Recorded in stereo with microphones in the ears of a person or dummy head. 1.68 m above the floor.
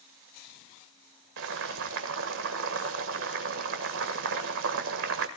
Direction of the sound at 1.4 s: 70° right (ahead or behind).